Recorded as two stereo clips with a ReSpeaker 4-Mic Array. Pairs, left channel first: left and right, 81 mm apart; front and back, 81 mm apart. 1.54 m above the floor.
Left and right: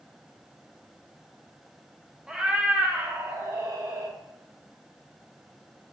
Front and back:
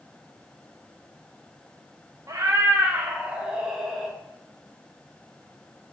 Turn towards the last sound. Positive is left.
turn(degrees=-85)